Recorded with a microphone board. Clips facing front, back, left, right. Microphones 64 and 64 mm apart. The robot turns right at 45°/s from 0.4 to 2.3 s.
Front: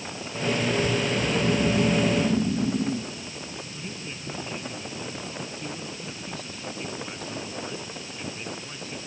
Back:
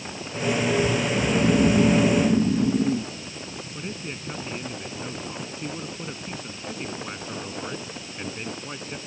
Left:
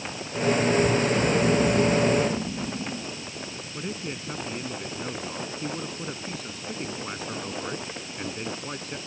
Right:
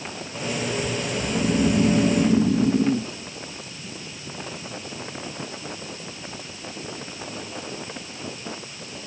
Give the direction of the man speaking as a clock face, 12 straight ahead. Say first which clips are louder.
Back 3 dB, left 5 dB; 8 o'clock.